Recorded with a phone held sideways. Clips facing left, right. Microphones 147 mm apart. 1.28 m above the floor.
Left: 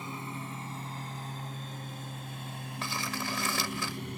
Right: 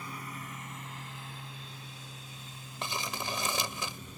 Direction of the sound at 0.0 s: 25° left (ahead or behind).